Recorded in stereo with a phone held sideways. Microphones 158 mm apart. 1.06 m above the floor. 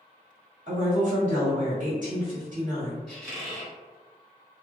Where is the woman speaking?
55° right (ahead or behind), 1.5 m.